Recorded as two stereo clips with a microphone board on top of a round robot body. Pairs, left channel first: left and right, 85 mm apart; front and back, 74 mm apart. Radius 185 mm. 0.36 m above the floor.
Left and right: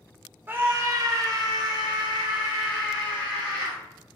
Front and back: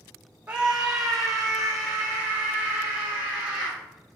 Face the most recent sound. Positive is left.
turn(degrees=-80)